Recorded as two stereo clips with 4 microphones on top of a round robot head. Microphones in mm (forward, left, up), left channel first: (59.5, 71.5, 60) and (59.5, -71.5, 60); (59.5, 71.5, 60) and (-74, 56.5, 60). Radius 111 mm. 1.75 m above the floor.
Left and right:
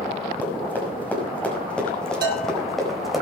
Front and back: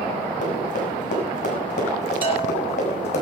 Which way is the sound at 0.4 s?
15° left.